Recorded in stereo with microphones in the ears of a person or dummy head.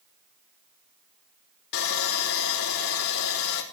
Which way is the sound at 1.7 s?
60° left (ahead or behind).